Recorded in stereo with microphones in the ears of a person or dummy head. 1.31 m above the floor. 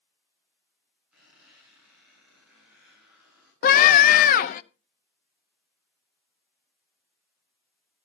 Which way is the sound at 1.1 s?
5° right (ahead or behind).